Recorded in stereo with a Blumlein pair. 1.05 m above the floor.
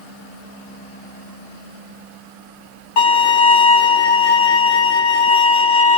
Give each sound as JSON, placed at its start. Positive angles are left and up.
{"t": 3.0, "sound": "a violin", "azimuth_deg": 45, "distance_m": 1.5}